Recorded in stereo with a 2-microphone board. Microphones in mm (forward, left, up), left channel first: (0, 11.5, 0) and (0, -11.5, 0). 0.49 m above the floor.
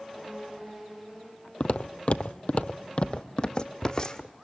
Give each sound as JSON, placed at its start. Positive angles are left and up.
{"t": 1.6, "sound": "footsteps", "side_deg": 60, "distance_m": 0.9}